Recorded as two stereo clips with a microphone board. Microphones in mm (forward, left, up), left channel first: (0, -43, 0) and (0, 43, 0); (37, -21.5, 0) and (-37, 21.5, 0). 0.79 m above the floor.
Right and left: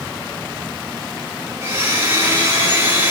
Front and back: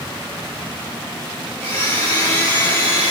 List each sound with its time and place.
1.6 s a blender: 30° left, 1.8 m